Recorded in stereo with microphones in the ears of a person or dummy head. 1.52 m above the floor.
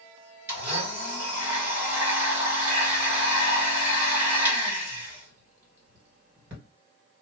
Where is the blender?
15° right (ahead or behind), 1.6 m.